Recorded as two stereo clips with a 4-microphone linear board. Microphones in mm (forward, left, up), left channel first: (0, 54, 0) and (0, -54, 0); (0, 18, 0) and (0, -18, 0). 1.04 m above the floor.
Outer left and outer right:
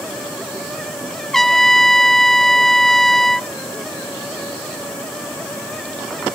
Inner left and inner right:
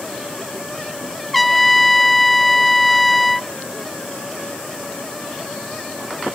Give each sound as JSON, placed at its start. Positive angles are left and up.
{"t": 1.3, "sound": "a trumpet", "side_deg": 5}